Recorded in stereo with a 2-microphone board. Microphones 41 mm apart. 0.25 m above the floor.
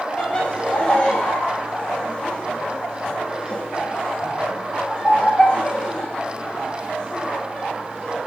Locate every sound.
0.2 s laughter: 20° left (ahead or behind), 1.0 m